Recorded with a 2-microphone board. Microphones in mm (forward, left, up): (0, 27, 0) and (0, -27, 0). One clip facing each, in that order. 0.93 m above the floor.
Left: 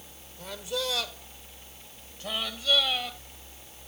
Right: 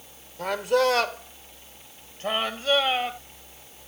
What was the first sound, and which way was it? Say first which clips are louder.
A man speaking: right 11 dB; 65° right (ahead or behind).